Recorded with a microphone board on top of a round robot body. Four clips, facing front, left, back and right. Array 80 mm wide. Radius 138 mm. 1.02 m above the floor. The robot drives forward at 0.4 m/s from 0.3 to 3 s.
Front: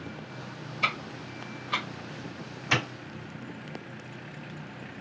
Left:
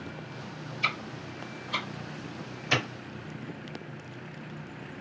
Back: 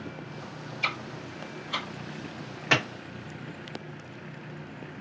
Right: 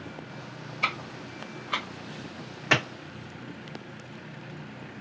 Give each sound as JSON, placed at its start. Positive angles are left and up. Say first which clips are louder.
{"t": 0.8, "sound": "ticking", "louder": "right 2 dB, front 3 dB", "azimuth_deg": -55, "distance_m": 1.2}
{"t": 2.7, "sound": "a clap", "louder": "right 4 dB, back 3 dB", "azimuth_deg": -125, "distance_m": 1.1}